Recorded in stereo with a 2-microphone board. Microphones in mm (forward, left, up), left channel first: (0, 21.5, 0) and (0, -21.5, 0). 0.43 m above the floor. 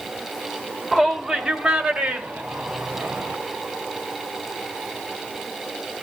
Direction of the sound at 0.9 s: 5° left (ahead or behind).